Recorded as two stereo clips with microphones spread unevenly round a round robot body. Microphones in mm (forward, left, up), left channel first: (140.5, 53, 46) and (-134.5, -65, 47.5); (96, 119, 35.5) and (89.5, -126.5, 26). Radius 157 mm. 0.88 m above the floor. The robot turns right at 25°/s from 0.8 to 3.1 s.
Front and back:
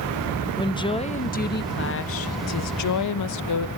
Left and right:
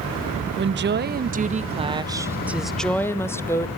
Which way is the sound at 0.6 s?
50° right.